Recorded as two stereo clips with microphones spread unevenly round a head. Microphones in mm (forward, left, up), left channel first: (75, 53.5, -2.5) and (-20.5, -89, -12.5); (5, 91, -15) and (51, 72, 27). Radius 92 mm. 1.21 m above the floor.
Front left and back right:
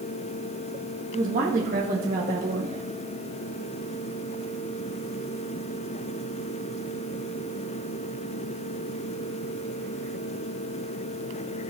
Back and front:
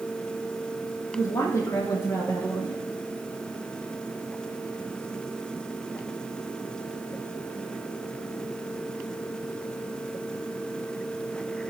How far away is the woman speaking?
About 1.8 m.